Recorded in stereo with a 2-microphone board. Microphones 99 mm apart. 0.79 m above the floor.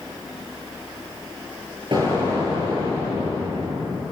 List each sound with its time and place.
1.9 s an explosion: 50° right (ahead or behind), 9.5 m